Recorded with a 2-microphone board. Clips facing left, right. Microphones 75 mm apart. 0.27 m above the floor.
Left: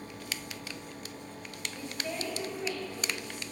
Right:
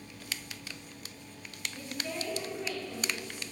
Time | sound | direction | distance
1.7 | a woman speaking | 25° left (ahead or behind) | 1.7 m